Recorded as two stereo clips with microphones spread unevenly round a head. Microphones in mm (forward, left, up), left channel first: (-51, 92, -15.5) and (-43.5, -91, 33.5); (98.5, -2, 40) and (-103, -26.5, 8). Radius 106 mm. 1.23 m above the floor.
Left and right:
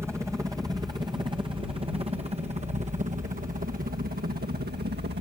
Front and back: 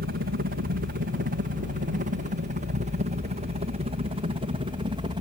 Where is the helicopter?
170° right; by 5.2 s 115° right.